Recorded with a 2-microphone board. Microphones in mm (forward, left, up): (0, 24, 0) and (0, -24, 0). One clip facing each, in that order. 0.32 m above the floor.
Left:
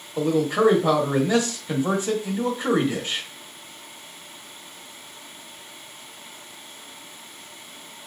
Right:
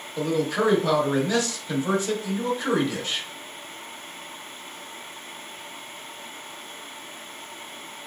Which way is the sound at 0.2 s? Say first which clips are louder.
Left 3 dB; 25° left (ahead or behind).